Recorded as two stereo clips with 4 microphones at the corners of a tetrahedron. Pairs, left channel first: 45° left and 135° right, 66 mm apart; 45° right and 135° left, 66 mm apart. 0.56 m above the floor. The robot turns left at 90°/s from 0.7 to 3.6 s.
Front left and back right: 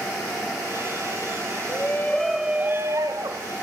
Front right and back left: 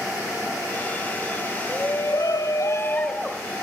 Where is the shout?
10° left, 2.5 m; by 3.5 s 155° right, 2.5 m.